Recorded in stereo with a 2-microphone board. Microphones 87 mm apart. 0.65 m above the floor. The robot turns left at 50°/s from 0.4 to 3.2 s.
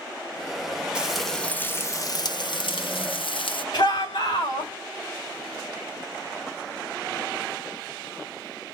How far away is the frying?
About 0.7 m.